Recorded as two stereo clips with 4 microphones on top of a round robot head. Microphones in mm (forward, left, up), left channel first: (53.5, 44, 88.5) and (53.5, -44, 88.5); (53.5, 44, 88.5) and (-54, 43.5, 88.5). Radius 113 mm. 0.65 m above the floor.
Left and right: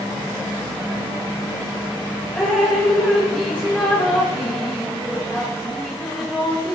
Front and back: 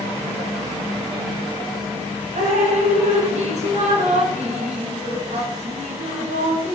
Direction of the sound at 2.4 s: 170° left.